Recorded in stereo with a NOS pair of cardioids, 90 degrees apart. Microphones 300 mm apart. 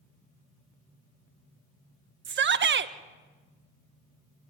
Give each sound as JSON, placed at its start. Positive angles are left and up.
{"t": 2.2, "sound": "a shout", "azimuth_deg": -40, "distance_m": 1.5}